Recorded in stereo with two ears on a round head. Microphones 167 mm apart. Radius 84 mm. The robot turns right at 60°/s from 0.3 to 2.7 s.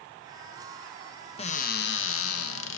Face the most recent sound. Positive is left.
turn(degrees=110)